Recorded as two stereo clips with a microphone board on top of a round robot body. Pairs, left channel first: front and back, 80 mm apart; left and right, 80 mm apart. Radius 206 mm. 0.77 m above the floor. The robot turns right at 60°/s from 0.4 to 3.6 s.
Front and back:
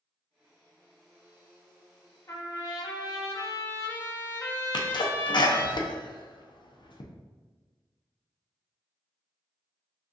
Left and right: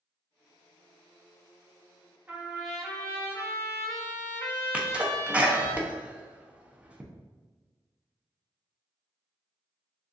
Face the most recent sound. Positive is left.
turn(degrees=-15)